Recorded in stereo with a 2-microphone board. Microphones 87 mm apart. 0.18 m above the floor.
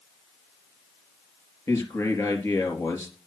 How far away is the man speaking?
About 3.5 m.